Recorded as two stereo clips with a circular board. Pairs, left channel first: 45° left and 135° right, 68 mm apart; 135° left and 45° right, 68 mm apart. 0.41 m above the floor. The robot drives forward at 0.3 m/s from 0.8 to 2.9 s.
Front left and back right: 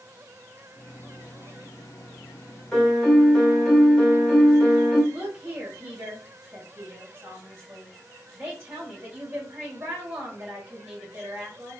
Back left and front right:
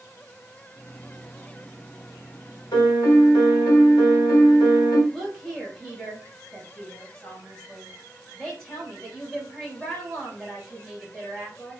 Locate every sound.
2.7 s a piano: 120° left, 1.3 m; by 5.0 s 125° left, 1.3 m
5.1 s a woman speaking: 160° right, 1.4 m